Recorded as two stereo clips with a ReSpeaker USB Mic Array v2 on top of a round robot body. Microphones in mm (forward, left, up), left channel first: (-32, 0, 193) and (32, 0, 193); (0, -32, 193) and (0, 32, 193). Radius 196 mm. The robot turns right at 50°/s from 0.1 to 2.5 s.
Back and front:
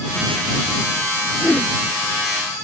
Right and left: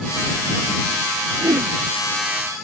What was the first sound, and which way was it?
A whoosh, 110° left.